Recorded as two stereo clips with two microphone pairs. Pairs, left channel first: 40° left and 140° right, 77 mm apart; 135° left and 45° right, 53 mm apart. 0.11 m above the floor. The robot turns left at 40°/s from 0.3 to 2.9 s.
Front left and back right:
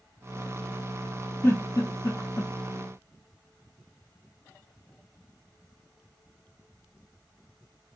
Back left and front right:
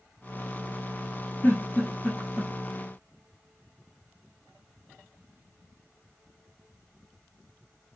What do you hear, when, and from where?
1.4 s a giggle: 90° left, 0.8 m; by 2.5 s 45° left, 0.8 m